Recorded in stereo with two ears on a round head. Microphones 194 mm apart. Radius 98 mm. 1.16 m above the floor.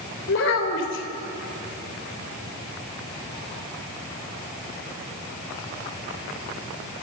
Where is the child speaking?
55° left (ahead or behind), 4 m.